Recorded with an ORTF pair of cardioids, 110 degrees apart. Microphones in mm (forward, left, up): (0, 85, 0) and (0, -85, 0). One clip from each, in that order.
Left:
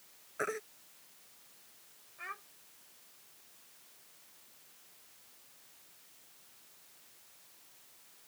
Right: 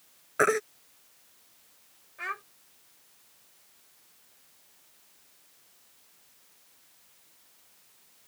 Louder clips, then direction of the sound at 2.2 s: Right 9 dB; 55° right.